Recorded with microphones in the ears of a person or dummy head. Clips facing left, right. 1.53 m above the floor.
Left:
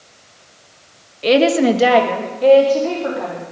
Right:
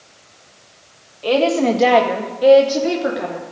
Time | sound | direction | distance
1.2 | a woman speaking | 30° left (ahead or behind) | 1.6 m